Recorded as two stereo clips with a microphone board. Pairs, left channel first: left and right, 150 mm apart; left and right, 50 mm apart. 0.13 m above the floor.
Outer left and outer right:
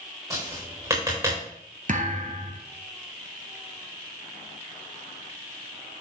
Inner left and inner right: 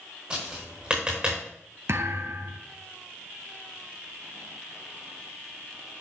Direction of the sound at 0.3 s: 20° right (ahead or behind).